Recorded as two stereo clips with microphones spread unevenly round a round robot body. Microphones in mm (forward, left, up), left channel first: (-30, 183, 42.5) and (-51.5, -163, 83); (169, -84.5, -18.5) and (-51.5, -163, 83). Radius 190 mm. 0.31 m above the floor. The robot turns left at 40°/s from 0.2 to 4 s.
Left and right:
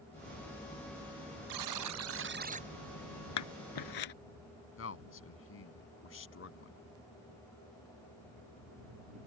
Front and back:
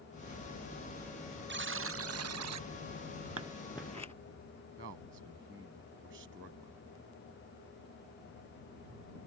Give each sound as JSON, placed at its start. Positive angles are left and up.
{"t": 1.5, "sound": "a buzzer", "azimuth_deg": -120}
{"t": 3.4, "sound": "scissors", "azimuth_deg": 125}
{"t": 4.8, "sound": "a man speaking", "azimuth_deg": 135}